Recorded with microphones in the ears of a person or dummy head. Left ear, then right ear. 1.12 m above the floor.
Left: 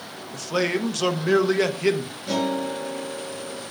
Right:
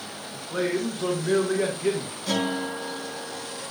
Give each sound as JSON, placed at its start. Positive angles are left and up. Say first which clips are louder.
{"t": 0.3, "sound": "a man speaking", "louder": "left 3 dB", "side_deg": 70, "distance_m": 1.0}
{"t": 2.3, "sound": "a guitar", "louder": "left 2 dB", "side_deg": -65, "distance_m": 4.5}